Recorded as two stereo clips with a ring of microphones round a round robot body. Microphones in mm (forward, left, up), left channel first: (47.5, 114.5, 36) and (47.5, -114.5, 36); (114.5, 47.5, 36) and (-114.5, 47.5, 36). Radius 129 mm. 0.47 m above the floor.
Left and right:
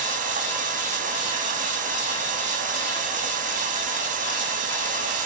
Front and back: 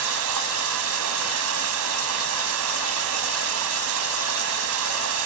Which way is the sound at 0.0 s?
150° right.